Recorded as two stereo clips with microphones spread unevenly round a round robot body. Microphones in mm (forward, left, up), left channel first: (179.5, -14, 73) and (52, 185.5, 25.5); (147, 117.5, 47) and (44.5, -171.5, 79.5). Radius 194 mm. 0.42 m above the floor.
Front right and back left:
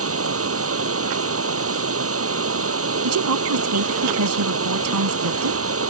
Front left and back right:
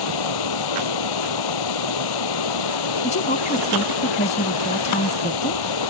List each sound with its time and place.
0.0 s running water: 95° left
3.0 s a woman speaking: 140° left